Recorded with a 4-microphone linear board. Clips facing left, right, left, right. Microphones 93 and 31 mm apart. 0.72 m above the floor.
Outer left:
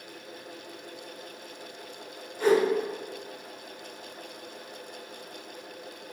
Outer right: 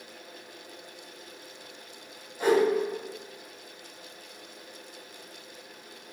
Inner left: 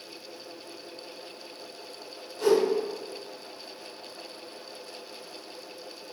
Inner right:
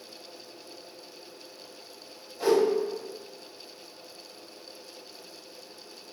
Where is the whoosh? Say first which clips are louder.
Outer left 1 dB, inner left 1 dB; 15° right (ahead or behind), 1.1 m.